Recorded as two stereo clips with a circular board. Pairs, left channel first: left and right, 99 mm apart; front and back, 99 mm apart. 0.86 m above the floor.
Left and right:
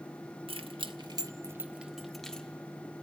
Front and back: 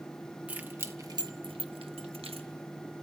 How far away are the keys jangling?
About 1.1 m.